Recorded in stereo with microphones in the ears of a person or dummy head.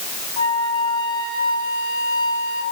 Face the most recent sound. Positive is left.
turn(degrees=25)  # may be behind; listen again after turning